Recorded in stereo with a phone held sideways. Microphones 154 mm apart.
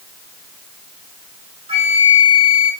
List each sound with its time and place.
1.7 s a flute: 40° right (ahead or behind), 1.1 m